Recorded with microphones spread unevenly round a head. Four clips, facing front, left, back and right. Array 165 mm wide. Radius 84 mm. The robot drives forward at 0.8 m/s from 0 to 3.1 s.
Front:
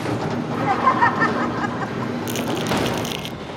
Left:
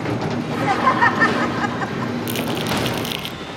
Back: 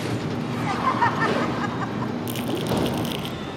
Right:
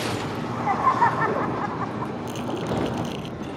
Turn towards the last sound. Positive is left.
turn(degrees=60)